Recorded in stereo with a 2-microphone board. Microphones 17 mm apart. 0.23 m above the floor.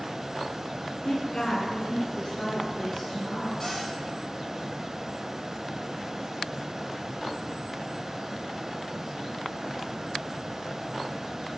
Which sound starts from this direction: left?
A woman speaking, at 1.0 s.